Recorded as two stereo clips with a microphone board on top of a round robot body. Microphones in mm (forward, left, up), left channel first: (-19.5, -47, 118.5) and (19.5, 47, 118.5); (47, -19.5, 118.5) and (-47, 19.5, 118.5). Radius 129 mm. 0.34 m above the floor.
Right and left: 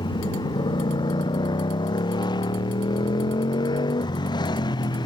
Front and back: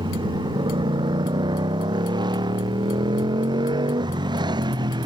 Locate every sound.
0.0 s a motorcycle: 160° right